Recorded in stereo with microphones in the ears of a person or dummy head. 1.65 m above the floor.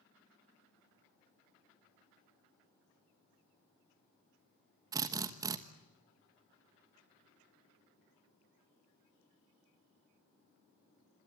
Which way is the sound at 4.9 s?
15° right (ahead or behind).